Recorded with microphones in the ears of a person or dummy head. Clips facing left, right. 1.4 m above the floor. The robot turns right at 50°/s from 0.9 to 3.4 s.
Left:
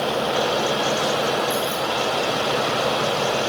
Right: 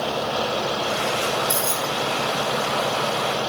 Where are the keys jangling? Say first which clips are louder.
Left 2 dB; 60° right (ahead or behind), 0.6 m; by 1.9 s 40° right (ahead or behind), 0.6 m.